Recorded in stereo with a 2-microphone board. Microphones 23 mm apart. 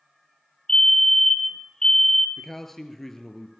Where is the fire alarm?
30° left (ahead or behind), 2.5 m.